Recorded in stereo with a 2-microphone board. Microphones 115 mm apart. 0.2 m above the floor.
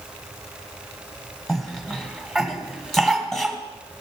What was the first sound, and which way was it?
A cough, centre (ahead or behind).